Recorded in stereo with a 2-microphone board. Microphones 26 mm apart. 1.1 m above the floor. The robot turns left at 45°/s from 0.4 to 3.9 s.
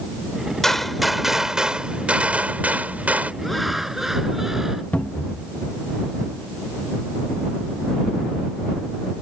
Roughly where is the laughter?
Centre.